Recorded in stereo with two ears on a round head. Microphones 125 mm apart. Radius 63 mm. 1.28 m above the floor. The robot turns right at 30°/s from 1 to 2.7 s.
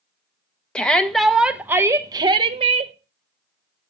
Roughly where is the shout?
Behind.